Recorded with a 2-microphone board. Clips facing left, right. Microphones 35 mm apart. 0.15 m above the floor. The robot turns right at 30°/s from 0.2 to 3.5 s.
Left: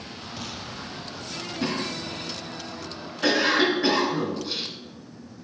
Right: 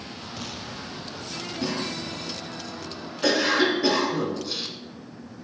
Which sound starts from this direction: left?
A cough, at 1.6 s.